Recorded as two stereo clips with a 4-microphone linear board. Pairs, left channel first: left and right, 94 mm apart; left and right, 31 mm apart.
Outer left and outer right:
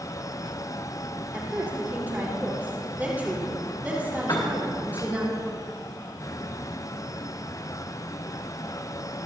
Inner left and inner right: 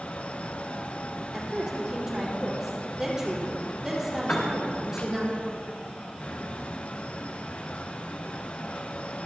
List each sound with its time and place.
1.3 s a woman speaking: 20° right (ahead or behind), 4.5 m
4.3 s a piano: 50° left (ahead or behind), 3 m